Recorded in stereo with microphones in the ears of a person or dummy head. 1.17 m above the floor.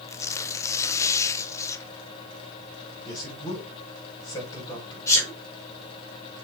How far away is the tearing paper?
About 0.6 m.